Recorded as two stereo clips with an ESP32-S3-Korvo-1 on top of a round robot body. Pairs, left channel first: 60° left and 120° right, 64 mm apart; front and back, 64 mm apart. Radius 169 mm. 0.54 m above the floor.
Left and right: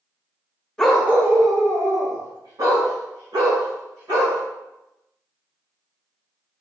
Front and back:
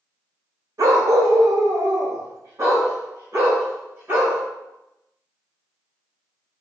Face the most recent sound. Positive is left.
turn(degrees=-130)